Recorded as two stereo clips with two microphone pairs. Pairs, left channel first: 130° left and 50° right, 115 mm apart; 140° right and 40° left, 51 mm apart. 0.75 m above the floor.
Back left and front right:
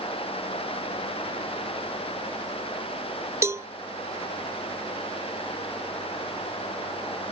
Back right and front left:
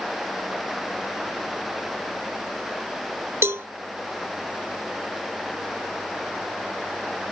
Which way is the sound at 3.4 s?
15° left.